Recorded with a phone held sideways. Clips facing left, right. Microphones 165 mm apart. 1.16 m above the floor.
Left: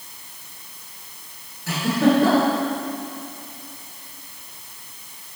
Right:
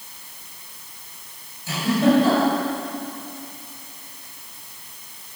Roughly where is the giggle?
Left.